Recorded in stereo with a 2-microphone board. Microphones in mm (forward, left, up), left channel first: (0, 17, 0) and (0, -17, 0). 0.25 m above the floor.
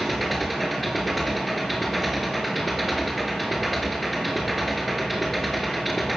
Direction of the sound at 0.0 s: Centre (ahead or behind).